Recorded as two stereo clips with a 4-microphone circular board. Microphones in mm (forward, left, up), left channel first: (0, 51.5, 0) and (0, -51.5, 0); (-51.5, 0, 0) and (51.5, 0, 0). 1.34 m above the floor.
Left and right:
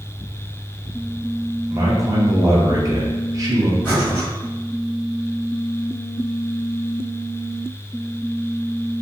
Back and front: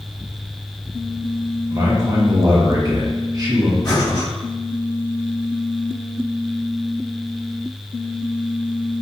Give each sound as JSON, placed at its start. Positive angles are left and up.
{"t": 1.7, "sound": "a man speaking", "azimuth_deg": -40, "distance_m": 0.5}
{"t": 3.8, "sound": "breathing", "azimuth_deg": 155, "distance_m": 1.6}